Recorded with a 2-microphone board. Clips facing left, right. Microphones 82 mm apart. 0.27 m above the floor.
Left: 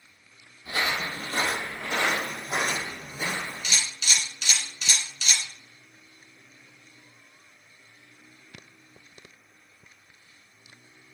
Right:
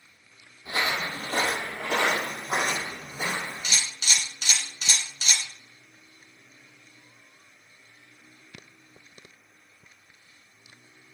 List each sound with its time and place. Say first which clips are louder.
0.7 s footsteps: even; 25° right (ahead or behind), 0.7 m; by 3.7 s 40° right (ahead or behind), 1.3 m
3.6 s a camera shutter: even; 40° right (ahead or behind), 1.3 m